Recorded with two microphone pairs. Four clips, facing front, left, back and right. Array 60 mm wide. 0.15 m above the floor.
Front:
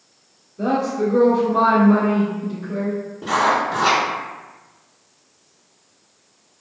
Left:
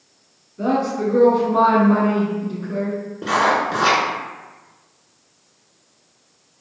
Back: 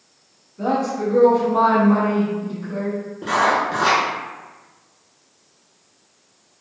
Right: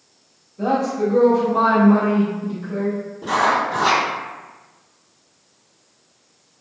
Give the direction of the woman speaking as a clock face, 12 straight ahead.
9 o'clock.